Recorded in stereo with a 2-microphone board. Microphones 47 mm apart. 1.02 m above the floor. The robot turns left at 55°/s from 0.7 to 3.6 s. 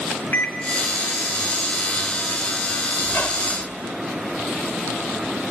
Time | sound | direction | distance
0.3 | a microwave | 50° left (ahead or behind) | 1.0 m
3.0 | a squeak | 135° left | 1.3 m